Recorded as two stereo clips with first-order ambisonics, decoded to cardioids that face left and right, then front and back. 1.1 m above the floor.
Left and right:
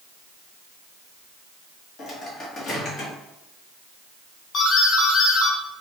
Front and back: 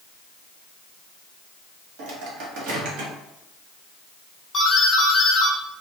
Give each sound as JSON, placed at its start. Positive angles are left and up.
{"t": 2.0, "sound": "a microwave", "azimuth_deg": 160, "distance_m": 1.0}
{"t": 4.5, "sound": "a doorbell", "azimuth_deg": 60, "distance_m": 1.1}